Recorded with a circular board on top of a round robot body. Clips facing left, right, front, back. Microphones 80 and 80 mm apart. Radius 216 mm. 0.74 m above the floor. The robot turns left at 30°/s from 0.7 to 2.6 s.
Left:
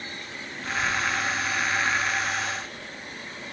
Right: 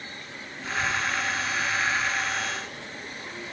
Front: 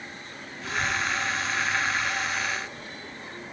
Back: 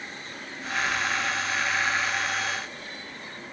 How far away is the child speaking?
About 2.0 m.